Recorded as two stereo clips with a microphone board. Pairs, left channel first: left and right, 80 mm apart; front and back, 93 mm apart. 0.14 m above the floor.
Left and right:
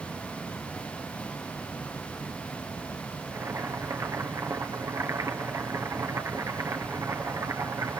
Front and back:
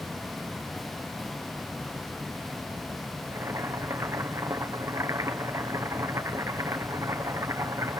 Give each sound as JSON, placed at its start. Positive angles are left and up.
{"t": 3.3, "sound": "boiling", "azimuth_deg": -125, "distance_m": 1.3}